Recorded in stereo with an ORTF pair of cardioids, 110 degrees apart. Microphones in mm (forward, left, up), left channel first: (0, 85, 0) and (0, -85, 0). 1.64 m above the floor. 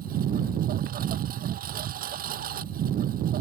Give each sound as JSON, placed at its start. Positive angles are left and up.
{"t": 0.0, "sound": "a lawn mower", "azimuth_deg": -60}